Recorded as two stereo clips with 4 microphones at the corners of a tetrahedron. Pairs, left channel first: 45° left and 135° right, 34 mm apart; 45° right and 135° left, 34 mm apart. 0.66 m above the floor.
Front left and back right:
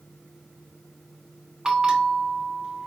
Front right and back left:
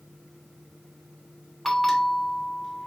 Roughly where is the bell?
Behind right.